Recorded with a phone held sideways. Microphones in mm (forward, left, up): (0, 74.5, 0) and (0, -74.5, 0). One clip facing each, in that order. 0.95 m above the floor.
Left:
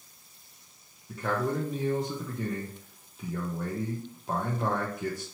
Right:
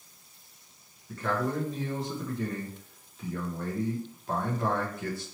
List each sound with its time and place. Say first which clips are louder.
1.1 s a man speaking: even; 15° left (ahead or behind), 0.8 m